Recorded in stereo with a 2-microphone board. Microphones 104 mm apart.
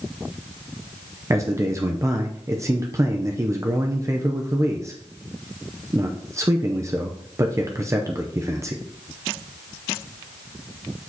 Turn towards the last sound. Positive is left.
turn(degrees=-30)  # may be behind; listen again after turning